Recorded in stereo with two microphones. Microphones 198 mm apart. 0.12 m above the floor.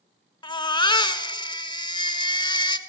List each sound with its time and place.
0.4 s a baby crying: 20° left (ahead or behind), 0.6 m